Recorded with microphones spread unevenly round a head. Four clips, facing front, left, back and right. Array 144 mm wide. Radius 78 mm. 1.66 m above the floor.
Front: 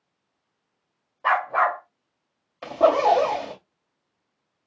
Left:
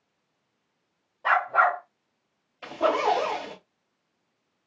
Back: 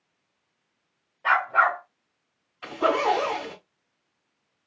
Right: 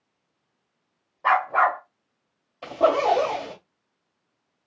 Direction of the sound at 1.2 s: 10° right.